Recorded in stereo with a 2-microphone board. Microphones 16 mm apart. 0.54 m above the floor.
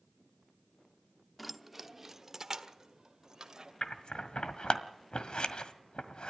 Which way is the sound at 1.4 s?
Centre (ahead or behind).